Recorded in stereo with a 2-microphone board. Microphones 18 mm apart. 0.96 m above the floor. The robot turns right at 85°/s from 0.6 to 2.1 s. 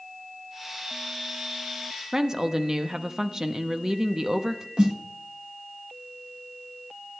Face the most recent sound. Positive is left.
turn(degrees=-50)  # may be behind; listen again after turning